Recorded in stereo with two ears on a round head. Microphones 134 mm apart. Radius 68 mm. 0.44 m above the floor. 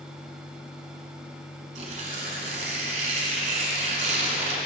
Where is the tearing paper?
50° right (ahead or behind), 1.4 m.